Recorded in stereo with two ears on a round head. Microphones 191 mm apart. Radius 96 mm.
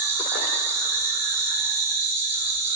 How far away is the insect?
About 0.7 m.